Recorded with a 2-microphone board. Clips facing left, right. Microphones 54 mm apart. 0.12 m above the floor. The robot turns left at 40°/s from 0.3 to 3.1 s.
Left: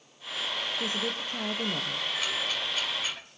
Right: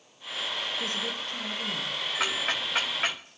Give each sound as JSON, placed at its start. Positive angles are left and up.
{"t": 0.8, "sound": "a woman speaking", "azimuth_deg": 165, "distance_m": 2.0}
{"t": 2.2, "sound": "ticking", "side_deg": -80, "distance_m": 3.0}